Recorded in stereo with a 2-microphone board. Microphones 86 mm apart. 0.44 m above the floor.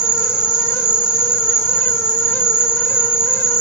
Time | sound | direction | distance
0.0 | an insect | 55° right (ahead or behind) | 0.9 m